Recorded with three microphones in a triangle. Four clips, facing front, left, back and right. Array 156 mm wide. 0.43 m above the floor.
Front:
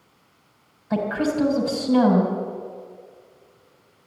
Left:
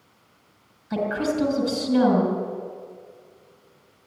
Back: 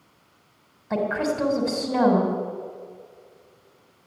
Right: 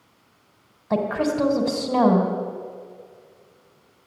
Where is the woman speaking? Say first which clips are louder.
Right 2 dB, front 1 dB; 100° right, 3.5 m.